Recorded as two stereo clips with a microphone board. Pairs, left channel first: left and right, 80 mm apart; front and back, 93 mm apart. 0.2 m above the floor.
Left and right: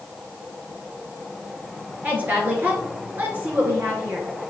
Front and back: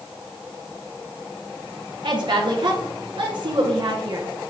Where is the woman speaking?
155° right, 2.5 m.